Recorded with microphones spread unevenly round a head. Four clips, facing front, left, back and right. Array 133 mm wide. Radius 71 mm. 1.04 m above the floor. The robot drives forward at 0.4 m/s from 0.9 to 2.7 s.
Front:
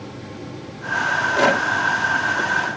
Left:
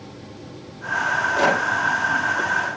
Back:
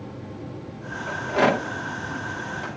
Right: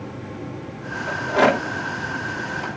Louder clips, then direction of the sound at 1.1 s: Right 2 dB, front 2 dB; 105° right.